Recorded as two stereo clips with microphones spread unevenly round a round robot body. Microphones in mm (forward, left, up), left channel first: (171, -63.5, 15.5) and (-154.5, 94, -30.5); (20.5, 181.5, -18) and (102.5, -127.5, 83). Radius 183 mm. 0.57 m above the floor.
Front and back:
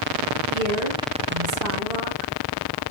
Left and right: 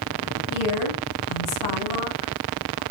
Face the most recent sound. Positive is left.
turn(degrees=140)